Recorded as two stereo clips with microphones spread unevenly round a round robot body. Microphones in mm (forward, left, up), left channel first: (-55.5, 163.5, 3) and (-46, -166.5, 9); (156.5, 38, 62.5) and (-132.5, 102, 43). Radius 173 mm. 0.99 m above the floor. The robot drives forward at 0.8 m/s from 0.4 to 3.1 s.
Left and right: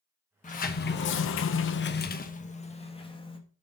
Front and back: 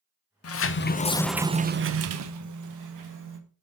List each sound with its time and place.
0.4 s a sliding door: 25° left, 1.0 m; by 3.4 s 165° left, 1.5 m